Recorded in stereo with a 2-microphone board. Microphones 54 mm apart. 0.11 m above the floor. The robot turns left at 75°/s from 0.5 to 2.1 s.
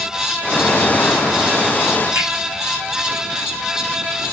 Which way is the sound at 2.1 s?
45° right (ahead or behind).